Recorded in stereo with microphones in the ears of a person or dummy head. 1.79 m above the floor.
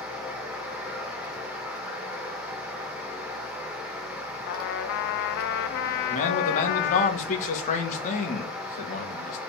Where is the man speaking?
50° left (ahead or behind), 1.8 m.